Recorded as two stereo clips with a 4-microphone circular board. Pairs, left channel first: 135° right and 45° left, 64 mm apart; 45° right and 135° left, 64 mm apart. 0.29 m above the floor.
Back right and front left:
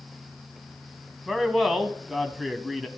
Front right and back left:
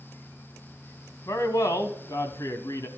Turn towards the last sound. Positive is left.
turn(degrees=-40)